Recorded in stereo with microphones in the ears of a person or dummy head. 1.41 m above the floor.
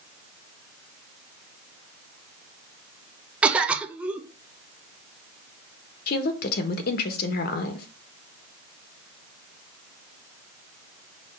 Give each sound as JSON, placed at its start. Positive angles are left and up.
{"t": 3.4, "sound": "a cough", "side_deg": -5, "distance_m": 0.6}
{"t": 6.1, "sound": "a woman speaking", "side_deg": 60, "distance_m": 1.2}